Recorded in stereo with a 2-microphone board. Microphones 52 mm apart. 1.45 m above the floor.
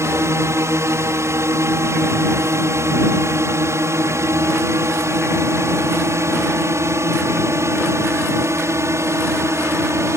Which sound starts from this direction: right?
A drone, at 0.0 s.